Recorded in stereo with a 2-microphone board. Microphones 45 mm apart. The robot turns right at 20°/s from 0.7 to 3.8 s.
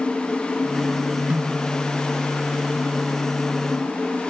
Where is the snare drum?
30° right (ahead or behind), 4.5 m; by 1.6 s 20° right (ahead or behind), 4.5 m.